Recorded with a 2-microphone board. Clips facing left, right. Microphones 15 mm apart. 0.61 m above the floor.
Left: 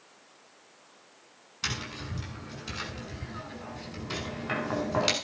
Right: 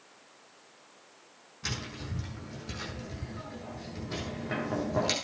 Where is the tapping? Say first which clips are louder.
Left 3 dB; 80° left, 7 m.